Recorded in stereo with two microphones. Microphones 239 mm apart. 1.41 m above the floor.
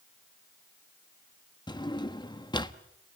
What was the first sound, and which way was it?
A drawer, 20° left (ahead or behind).